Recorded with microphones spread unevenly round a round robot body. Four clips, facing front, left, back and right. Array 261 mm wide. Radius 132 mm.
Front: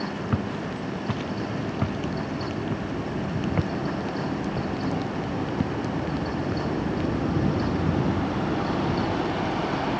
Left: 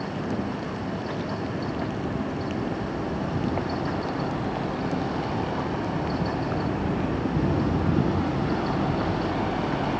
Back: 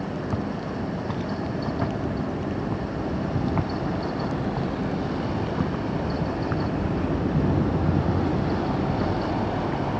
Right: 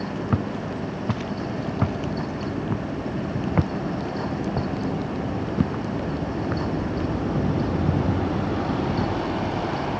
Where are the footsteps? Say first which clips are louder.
Right 2 dB, even; 65° right; by 9.8 s 115° right.